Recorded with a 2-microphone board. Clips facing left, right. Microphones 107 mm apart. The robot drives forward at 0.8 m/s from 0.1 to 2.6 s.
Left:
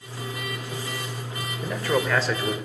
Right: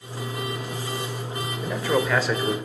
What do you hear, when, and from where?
1.6 s a man speaking: 5° right (ahead or behind), 2.5 m